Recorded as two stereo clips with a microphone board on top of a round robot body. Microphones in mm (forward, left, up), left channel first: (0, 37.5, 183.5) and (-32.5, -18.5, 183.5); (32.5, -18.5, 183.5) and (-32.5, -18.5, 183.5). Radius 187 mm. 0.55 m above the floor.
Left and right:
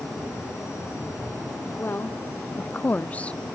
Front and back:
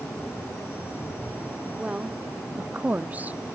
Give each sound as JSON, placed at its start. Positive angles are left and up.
{"t": 1.8, "sound": "a woman speaking", "azimuth_deg": 110}